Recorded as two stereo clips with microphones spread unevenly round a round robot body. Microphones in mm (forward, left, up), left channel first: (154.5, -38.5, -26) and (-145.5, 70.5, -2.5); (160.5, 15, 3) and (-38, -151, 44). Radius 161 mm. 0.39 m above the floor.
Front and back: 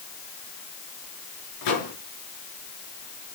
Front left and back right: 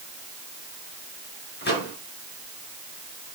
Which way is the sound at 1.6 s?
5° right.